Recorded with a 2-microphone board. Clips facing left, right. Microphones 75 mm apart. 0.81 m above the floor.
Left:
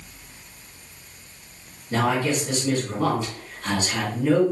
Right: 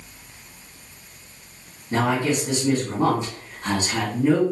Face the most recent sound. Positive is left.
turn(degrees=-25)  # may be behind; listen again after turning